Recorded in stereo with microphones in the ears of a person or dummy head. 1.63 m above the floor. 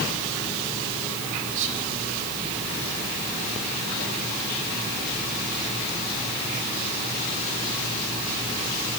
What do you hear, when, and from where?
1.5 s whispering: 70° right (ahead or behind), 5 m